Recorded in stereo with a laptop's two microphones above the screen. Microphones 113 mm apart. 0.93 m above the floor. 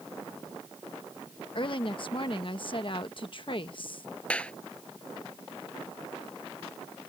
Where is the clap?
10° left (ahead or behind).